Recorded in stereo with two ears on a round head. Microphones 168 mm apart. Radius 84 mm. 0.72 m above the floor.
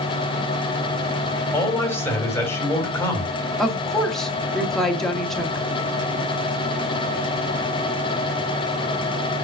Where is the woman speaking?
5° left (ahead or behind), 1.7 m.